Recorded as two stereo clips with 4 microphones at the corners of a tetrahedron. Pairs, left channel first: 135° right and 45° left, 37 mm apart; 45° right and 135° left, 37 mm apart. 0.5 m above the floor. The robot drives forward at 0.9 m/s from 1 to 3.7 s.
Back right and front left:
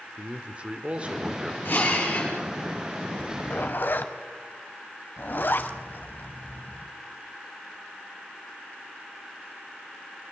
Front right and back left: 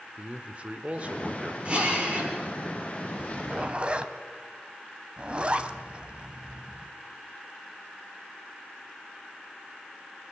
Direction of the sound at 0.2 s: 95° left.